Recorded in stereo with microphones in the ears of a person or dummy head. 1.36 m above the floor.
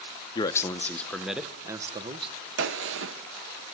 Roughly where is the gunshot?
Right.